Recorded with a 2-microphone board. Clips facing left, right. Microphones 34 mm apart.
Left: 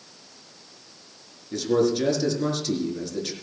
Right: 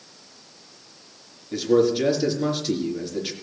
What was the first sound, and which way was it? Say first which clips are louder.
A man speaking: right 3 dB; 5° right (ahead or behind).